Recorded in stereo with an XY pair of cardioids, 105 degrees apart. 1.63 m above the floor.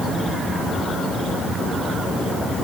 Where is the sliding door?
I don't hear a sliding door.